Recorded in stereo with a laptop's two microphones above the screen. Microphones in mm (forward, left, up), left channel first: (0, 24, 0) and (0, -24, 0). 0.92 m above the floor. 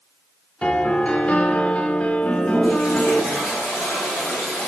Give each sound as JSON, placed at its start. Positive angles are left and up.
{"t": 0.6, "sound": "a piano", "side_deg": 20, "distance_m": 0.8}
{"t": 2.2, "sound": "a toilet flushing", "side_deg": 0, "distance_m": 4.0}